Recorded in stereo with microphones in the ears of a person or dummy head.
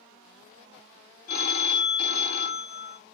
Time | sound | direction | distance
1.3 | a phone ringing | 50° left (ahead or behind) | 0.6 m